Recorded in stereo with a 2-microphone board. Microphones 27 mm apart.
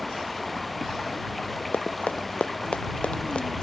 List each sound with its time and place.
0.0 s running water: centre (ahead or behind)
1.7 s running footsteps: 55° left (ahead or behind); by 3.6 s 40° left (ahead or behind)